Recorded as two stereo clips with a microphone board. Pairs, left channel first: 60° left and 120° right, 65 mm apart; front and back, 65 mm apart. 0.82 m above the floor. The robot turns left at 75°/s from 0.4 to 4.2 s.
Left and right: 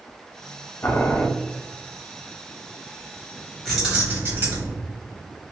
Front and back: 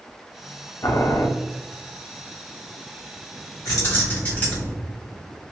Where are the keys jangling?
25° right, 1.7 m; by 4.7 s 65° right, 1.7 m.